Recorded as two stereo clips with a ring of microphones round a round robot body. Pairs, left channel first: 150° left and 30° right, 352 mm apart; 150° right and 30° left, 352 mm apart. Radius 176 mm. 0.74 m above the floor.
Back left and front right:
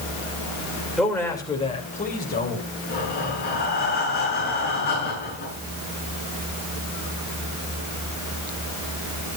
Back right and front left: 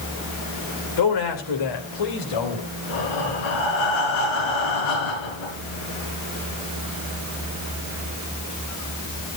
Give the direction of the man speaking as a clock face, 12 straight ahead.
4 o'clock.